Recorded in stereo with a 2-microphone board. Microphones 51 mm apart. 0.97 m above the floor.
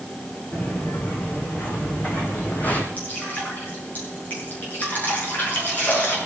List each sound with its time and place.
0.5 s footsteps: 35° left (ahead or behind), 4 m
3.0 s dripping: 35° left (ahead or behind), 7.5 m